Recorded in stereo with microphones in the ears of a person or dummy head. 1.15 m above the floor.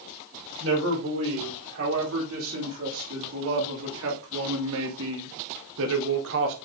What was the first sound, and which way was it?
A man speaking, 85° right.